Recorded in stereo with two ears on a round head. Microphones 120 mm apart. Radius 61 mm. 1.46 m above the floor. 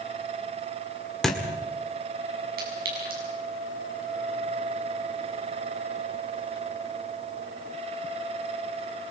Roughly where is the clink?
Right.